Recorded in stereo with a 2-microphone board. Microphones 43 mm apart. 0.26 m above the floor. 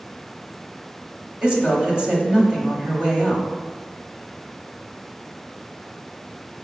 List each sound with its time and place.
1.4 s a woman speaking: 20° right (ahead or behind), 1.0 m